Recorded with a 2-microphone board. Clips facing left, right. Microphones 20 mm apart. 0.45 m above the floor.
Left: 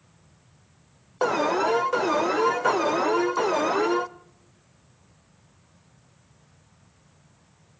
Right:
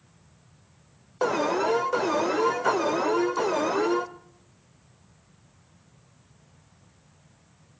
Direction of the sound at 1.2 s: 10° left (ahead or behind).